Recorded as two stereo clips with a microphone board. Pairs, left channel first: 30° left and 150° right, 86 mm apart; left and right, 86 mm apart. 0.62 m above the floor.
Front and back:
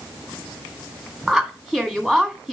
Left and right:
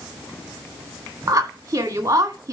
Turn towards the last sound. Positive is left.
turn(degrees=-55)